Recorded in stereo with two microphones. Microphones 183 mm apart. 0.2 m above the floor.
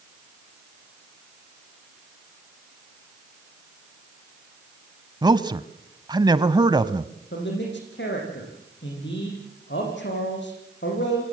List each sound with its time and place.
5.2 s a man speaking: 25° right (ahead or behind), 1.0 m
7.3 s a man speaking: 80° left, 9 m